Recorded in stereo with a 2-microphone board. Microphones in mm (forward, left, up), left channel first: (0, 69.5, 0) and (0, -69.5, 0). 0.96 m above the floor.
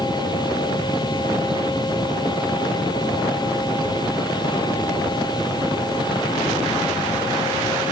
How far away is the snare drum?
No snare drum in this recording.